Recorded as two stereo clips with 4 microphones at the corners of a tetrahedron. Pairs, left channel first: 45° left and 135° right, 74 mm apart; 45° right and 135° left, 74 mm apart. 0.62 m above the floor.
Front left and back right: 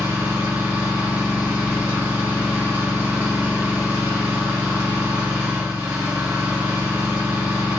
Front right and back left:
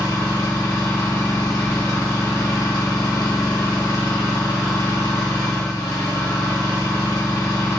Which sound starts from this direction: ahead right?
An engine running, at 0.0 s.